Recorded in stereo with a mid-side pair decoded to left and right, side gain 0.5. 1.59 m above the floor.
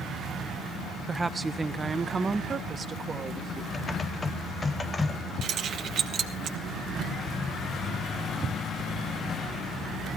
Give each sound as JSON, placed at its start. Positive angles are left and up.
{"t": 1.1, "sound": "a woman speaking", "azimuth_deg": -15, "distance_m": 0.9}
{"t": 3.7, "sound": "typing on a keyboard", "azimuth_deg": 30, "distance_m": 0.9}
{"t": 5.4, "sound": "keys jangling", "azimuth_deg": -60, "distance_m": 1.5}